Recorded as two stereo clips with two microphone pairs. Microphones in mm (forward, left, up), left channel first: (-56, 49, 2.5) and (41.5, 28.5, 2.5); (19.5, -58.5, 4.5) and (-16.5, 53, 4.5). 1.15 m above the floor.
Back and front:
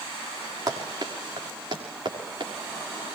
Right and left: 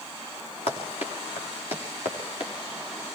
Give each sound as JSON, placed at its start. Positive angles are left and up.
{"t": 0.7, "sound": "running footsteps", "azimuth_deg": -50, "distance_m": 4.5}